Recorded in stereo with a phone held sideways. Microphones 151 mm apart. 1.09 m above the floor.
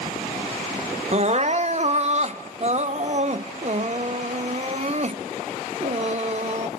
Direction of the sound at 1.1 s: 45° right (ahead or behind).